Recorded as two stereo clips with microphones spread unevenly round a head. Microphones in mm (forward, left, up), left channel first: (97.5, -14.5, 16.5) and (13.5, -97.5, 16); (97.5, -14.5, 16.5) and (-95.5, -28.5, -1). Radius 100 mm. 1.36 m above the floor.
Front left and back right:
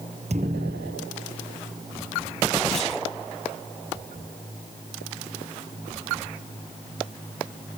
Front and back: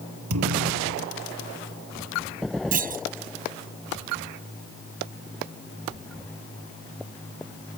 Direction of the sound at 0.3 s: 165° left.